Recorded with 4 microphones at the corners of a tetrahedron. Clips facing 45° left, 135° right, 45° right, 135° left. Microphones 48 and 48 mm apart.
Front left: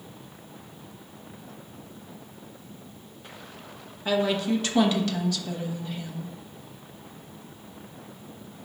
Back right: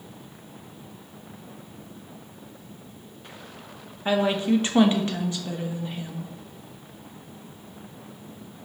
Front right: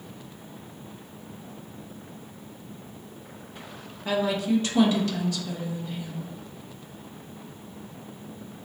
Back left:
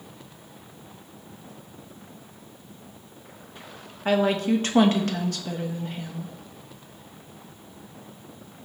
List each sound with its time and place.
4.0 s a woman speaking: 165° left, 0.7 m